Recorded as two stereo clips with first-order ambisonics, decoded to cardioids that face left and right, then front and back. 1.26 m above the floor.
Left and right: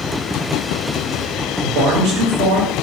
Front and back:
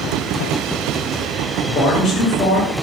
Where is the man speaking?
60° right, 1.7 m.